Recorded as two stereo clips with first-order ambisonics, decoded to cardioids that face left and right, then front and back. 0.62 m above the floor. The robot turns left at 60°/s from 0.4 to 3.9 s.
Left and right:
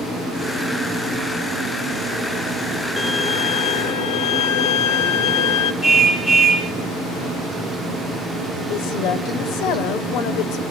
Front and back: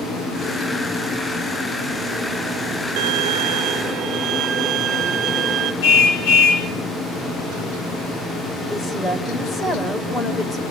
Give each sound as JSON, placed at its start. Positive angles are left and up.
{"t": 3.0, "sound": "a violin", "azimuth_deg": -175, "distance_m": 1.2}
{"t": 5.8, "sound": "a car horn", "azimuth_deg": 20, "distance_m": 3.5}
{"t": 8.7, "sound": "a woman speaking", "azimuth_deg": 75, "distance_m": 2.5}